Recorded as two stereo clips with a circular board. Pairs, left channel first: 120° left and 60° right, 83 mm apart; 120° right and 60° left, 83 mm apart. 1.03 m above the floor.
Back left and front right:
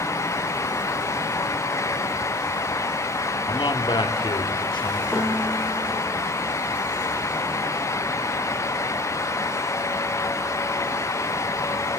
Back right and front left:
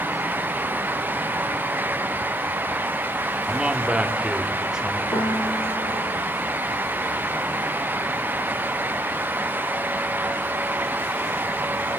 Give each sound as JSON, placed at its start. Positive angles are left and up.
{"t": 3.5, "sound": "a man speaking", "azimuth_deg": 135, "distance_m": 2.5}
{"t": 5.1, "sound": "a piano", "azimuth_deg": -145, "distance_m": 7.5}